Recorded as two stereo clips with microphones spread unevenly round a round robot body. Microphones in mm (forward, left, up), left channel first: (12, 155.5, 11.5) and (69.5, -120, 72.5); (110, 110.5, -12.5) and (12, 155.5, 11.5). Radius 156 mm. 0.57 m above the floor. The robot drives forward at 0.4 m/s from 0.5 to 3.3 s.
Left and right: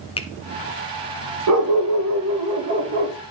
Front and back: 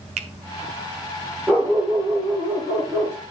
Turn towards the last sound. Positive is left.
turn(degrees=-145)